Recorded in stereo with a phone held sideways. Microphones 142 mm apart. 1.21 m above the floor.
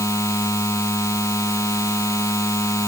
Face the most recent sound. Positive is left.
turn(degrees=20)  # may be behind; listen again after turning